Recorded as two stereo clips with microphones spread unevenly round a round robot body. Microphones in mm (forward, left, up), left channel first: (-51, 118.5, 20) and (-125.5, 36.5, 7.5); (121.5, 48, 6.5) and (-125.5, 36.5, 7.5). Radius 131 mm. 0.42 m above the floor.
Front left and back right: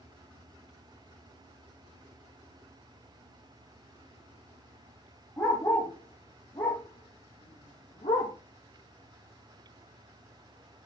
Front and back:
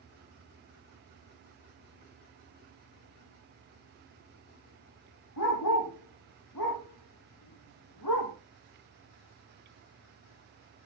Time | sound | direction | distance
5.4 | a dog barking | 30° right | 6.5 m